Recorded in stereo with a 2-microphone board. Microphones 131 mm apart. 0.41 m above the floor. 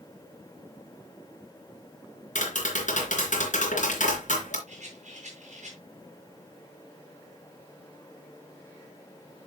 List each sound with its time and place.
2.4 s tapping: 70° left (ahead or behind), 3.5 m
4.7 s a rattle: 65° right (ahead or behind), 4 m